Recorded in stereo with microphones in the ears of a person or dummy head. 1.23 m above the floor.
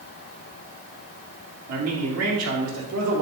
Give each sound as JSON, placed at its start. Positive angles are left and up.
{"t": 1.7, "sound": "a man speaking", "side_deg": -85, "distance_m": 2.5}